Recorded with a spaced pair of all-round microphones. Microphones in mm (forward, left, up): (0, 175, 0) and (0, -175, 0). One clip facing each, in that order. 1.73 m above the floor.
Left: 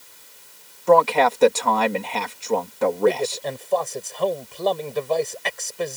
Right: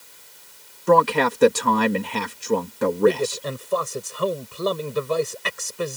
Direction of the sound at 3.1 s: 15° right (ahead or behind).